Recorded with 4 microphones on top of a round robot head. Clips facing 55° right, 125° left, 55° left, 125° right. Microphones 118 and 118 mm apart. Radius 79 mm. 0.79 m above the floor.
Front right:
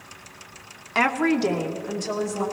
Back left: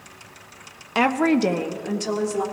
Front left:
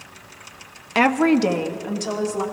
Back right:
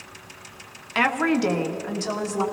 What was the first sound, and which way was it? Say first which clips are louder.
A woman speaking: back left 3 dB, front left 5 dB; 60° left.